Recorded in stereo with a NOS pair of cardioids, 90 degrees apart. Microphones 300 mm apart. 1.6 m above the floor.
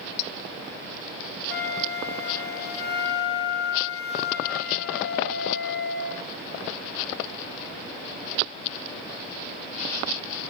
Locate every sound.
1.5 s a flute: 35° left, 2 m